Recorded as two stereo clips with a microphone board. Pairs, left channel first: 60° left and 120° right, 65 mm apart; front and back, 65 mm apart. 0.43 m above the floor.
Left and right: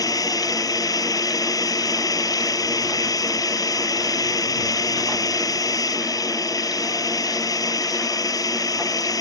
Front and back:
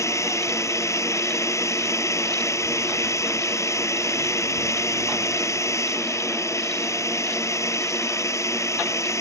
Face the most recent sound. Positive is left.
turn(degrees=40)